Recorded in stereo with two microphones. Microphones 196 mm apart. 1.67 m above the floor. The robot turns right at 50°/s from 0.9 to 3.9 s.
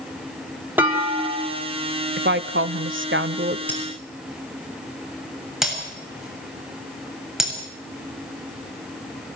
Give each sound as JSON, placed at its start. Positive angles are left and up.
{"t": 0.8, "sound": "a clunk", "azimuth_deg": -10, "distance_m": 3.5}
{"t": 2.2, "sound": "a woman speaking", "azimuth_deg": -125, "distance_m": 0.8}
{"t": 3.7, "sound": "breaking glass", "side_deg": 10, "distance_m": 7.5}